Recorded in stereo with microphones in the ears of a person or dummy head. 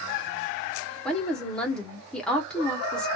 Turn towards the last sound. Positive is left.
turn(degrees=0)  # may be behind; listen again after turning